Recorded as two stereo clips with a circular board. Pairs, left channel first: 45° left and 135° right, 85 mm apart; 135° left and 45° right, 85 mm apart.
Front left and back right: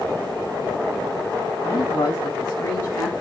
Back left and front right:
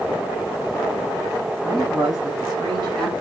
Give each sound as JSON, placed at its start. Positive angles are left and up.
{"t": 1.6, "sound": "a man speaking", "azimuth_deg": -5, "distance_m": 5.5}